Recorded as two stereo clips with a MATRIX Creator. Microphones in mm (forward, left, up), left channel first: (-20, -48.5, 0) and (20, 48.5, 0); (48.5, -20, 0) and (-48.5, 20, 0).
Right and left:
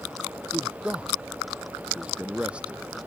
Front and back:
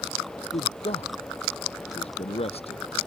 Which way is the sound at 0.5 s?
10° right.